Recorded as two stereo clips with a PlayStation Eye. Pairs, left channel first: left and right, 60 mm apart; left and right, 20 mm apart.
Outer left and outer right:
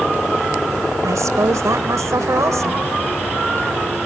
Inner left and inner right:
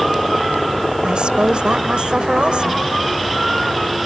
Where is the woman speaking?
60° right (ahead or behind).